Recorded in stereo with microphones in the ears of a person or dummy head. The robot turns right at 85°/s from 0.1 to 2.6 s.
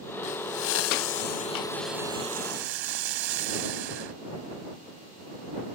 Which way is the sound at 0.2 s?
35° left.